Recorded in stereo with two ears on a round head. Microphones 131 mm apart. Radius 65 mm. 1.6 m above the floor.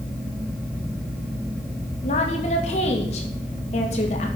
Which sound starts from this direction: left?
A woman speaking, at 2.0 s.